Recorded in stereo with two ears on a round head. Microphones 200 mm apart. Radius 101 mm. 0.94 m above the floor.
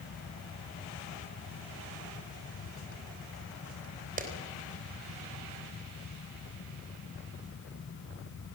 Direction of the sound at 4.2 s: 40° right (ahead or behind).